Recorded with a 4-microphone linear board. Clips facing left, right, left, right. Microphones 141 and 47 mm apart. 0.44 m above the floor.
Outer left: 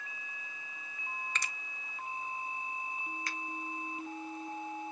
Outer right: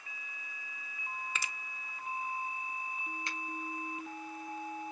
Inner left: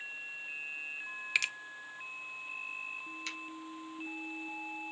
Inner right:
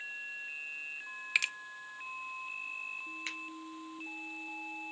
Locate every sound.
1.4 s a finger snap: 5° right (ahead or behind), 0.5 m
3.3 s a finger snap: 25° right (ahead or behind), 2.5 m